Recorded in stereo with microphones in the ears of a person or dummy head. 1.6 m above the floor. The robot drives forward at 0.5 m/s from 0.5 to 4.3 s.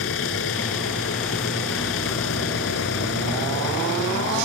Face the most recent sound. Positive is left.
turn(degrees=75)  # may be behind; listen again after turning